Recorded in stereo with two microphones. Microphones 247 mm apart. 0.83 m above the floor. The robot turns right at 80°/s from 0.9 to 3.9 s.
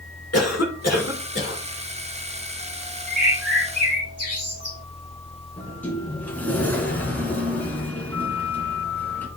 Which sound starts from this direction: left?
A cough, at 0.3 s.